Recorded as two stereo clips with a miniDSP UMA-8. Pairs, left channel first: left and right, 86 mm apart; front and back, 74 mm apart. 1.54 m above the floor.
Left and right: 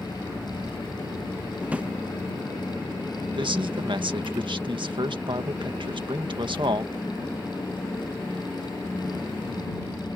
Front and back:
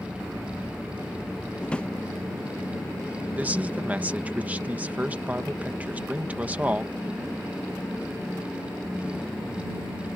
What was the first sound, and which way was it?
A drawer, 50° right.